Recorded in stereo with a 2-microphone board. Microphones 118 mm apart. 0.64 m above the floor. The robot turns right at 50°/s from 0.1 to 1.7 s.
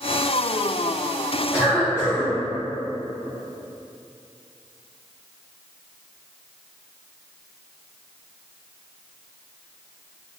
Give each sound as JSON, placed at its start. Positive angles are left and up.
{"t": 1.5, "sound": "a cough", "side_deg": -10, "distance_m": 1.0}